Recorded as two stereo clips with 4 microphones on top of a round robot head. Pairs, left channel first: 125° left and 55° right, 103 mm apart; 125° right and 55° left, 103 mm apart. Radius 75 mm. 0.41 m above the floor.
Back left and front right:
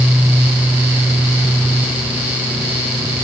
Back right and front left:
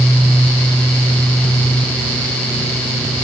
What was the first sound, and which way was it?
Only background noise.